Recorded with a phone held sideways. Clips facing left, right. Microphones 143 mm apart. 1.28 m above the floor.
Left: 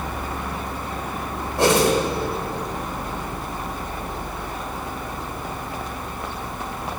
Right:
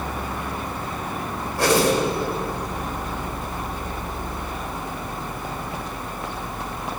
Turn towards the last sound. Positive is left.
turn(degrees=25)  # may be behind; listen again after turning